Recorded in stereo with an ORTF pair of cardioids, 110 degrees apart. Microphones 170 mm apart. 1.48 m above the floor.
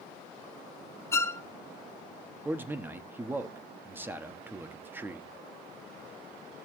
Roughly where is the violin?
Ahead.